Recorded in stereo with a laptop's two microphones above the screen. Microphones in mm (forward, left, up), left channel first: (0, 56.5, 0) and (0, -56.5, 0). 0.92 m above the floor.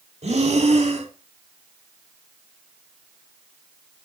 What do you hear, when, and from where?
0.2 s breathing: 65° right (ahead or behind), 1.7 m